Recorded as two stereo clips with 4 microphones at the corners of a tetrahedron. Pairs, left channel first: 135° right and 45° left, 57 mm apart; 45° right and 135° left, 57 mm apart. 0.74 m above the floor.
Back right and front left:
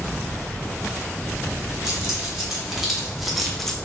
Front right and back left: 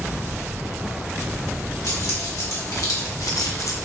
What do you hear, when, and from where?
1.8 s keys jangling: 35° right, 1.9 m; by 3.8 s 55° right, 0.5 m